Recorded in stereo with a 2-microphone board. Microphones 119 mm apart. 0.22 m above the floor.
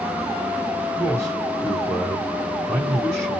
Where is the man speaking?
20° right (ahead or behind), 2.5 m.